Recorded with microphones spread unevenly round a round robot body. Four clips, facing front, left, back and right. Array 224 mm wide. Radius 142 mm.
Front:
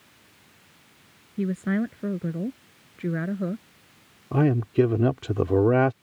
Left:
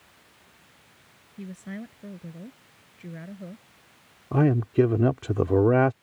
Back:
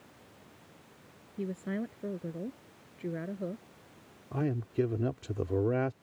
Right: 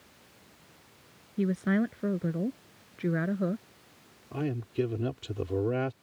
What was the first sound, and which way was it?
A woman speaking, 35° right.